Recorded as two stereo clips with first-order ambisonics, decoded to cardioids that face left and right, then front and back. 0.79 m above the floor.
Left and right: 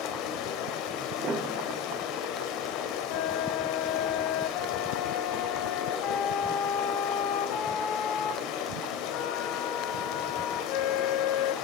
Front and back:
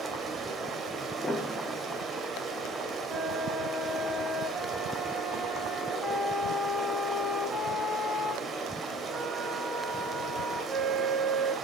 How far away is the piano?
About 1.0 m.